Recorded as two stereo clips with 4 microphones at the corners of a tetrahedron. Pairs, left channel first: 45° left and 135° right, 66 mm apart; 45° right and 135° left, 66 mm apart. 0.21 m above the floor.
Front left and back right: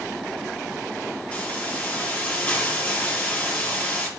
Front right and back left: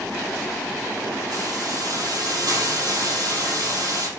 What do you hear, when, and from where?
1.3 s a hiss: 115° left, 5.5 m